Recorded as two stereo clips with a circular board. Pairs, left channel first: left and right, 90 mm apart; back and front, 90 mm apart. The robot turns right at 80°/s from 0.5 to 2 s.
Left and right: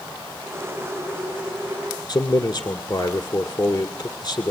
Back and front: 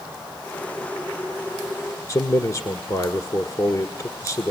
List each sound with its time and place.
2.1 s a man speaking: 140° left, 1.7 m